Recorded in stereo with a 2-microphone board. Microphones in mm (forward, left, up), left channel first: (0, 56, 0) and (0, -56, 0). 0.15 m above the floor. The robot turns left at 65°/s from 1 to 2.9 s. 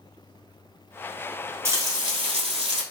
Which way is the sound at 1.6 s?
35° right.